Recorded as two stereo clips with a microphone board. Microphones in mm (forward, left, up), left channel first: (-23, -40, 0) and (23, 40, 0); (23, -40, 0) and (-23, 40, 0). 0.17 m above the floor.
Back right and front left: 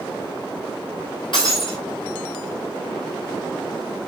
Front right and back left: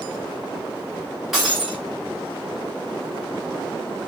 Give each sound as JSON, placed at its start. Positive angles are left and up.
{"t": 1.3, "sound": "breaking glass", "azimuth_deg": -155, "distance_m": 7.0}